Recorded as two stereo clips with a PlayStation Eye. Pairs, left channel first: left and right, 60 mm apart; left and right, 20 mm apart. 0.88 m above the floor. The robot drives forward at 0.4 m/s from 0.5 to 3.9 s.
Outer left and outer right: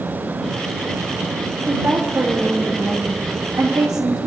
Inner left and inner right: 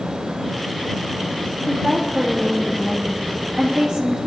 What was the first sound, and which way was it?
A woman speaking, 35° right (ahead or behind).